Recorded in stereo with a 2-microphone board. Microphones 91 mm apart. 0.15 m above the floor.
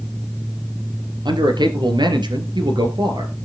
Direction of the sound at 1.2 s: 55° right (ahead or behind).